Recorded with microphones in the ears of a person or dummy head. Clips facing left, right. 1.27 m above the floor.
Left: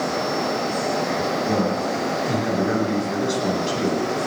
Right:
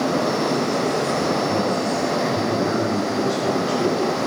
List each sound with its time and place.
1.5 s a man speaking: 40° left (ahead or behind), 9.5 m